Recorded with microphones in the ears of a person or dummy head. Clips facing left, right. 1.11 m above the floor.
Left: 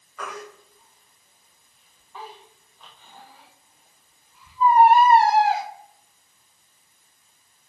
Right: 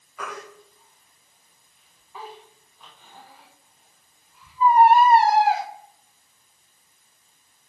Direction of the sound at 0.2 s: 15° right (ahead or behind).